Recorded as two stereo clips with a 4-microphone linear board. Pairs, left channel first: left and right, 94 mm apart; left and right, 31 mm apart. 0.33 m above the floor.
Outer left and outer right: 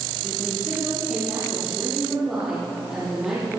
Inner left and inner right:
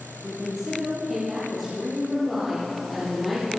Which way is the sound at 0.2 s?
5° right (ahead or behind).